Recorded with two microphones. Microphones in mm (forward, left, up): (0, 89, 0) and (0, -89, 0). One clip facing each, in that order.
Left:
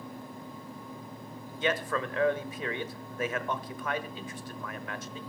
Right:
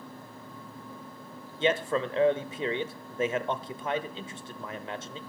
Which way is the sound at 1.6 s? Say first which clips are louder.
Right 4 dB; 25° right (ahead or behind).